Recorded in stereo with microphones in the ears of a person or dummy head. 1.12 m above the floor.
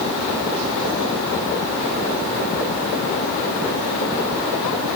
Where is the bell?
No bell in this recording.